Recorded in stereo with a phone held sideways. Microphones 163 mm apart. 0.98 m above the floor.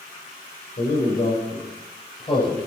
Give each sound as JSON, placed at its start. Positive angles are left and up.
{"t": 0.8, "sound": "a man speaking", "side_deg": 55, "distance_m": 5.0}